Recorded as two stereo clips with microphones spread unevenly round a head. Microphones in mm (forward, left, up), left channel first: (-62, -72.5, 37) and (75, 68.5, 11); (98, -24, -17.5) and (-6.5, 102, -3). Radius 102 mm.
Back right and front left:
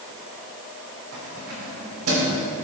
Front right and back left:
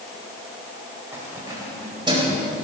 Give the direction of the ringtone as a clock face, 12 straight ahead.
I don't hear a ringtone.